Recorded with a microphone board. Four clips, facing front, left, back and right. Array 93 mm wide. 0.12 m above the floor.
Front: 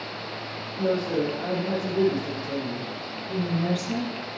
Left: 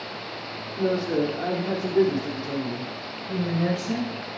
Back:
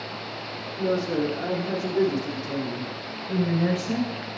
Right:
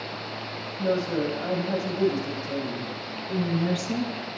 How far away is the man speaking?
About 5.5 m.